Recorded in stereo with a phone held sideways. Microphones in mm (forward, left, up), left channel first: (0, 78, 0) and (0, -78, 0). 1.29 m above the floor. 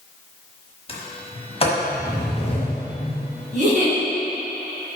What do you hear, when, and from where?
0.9 s a sliding door: 35° left (ahead or behind), 1.1 m
3.5 s a giggle: 45° right (ahead or behind), 1.8 m